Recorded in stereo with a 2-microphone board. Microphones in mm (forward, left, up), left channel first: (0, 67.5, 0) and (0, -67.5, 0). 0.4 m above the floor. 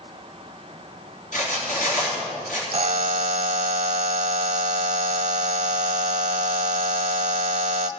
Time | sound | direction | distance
1.3 | cutlery clinking | 75° left (ahead or behind) | 3.5 m
2.7 | a buzzer | 65° right (ahead or behind) | 0.6 m